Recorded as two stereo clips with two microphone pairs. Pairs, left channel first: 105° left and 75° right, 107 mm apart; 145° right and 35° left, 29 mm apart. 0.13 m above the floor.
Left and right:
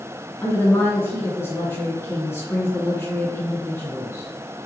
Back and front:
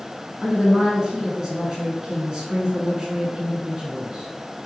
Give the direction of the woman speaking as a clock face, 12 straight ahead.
10 o'clock.